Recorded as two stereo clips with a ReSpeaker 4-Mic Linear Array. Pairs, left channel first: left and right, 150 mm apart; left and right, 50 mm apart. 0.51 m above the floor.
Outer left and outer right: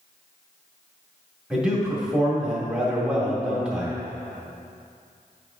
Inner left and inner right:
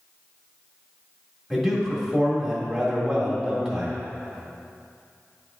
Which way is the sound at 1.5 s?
5° right (ahead or behind).